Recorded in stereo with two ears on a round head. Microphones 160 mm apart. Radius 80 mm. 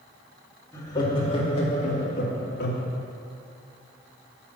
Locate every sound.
0.7 s laughter: 20° left (ahead or behind), 2.5 m; by 2.9 s 60° left (ahead or behind), 2 m